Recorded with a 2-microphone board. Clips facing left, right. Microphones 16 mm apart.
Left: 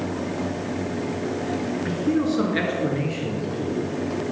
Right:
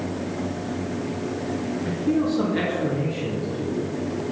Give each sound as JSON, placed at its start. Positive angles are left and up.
{"t": 1.9, "sound": "a man speaking", "side_deg": 25, "distance_m": 1.4}